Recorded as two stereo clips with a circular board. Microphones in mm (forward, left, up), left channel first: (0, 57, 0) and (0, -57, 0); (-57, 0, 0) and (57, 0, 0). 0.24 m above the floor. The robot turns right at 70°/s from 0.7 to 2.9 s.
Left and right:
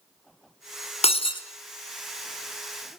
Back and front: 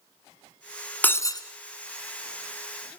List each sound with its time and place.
1.0 s breaking glass: 105° left, 1.5 m; by 1.4 s 135° left, 1.5 m